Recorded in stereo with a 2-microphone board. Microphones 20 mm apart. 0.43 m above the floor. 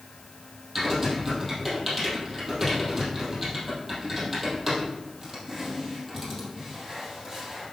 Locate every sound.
0.8 s typing on a keyboard: 5° right (ahead or behind), 4 m